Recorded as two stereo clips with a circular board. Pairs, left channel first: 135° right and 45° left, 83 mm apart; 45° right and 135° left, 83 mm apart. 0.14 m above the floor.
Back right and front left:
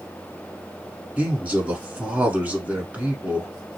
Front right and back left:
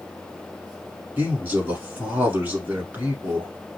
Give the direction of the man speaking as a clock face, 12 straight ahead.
9 o'clock.